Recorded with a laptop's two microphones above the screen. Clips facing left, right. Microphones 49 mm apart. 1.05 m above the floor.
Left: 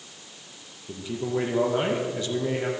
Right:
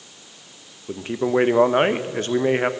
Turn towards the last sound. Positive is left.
turn(degrees=-50)  # may be behind; listen again after turning